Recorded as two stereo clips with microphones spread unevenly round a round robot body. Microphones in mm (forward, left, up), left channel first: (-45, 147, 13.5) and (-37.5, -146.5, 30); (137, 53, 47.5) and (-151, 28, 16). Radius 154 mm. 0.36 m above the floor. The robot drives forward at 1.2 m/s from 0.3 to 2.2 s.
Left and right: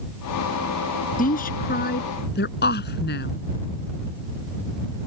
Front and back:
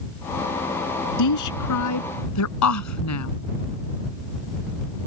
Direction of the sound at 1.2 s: 25° left.